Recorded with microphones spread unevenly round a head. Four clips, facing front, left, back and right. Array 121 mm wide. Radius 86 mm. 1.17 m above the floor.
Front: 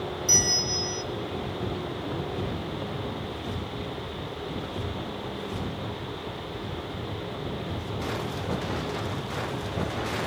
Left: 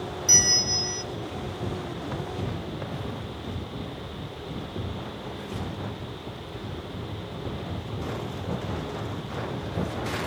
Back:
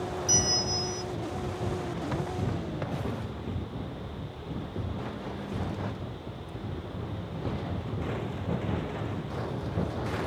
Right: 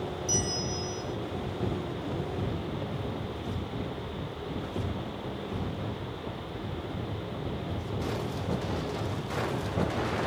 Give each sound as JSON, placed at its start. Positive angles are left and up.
{"t": 0.3, "sound": "a bell", "azimuth_deg": 75, "distance_m": 0.9}